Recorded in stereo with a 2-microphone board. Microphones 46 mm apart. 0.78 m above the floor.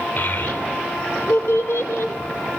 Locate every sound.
0.2 s a child speaking: 40° left (ahead or behind), 2.5 m; by 2.1 s 75° left (ahead or behind), 2 m